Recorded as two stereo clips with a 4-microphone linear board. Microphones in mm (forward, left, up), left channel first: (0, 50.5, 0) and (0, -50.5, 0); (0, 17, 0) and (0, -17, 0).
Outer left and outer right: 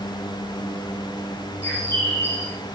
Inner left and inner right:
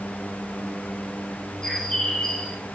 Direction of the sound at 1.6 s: 25° left (ahead or behind).